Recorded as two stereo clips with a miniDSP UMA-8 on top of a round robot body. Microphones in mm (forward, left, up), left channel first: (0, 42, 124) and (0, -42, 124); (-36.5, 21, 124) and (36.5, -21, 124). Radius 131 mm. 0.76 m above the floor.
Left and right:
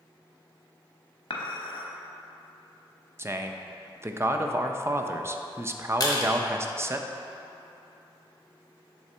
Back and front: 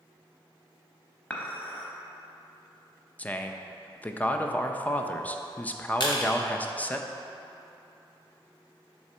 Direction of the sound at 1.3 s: 80° left.